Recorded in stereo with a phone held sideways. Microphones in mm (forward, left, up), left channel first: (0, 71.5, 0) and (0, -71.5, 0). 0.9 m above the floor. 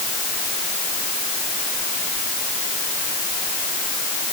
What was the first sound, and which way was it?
Only background noise.